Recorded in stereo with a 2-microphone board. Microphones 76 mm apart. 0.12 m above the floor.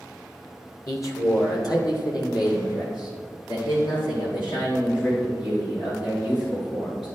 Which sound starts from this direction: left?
A man speaking, at 0.9 s.